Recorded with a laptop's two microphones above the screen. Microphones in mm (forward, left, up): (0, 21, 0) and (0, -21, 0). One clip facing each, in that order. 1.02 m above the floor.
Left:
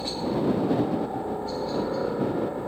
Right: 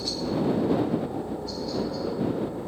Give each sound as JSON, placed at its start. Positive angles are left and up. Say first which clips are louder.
{"t": 0.0, "sound": "a helicopter", "louder": "left 1 dB", "side_deg": 30}